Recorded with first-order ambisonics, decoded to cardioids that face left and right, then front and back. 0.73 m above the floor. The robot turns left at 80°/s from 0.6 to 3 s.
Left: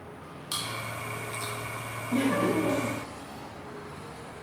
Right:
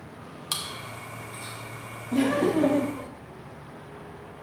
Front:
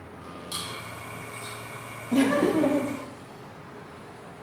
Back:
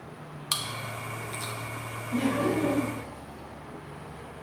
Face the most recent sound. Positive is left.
turn(degrees=-75)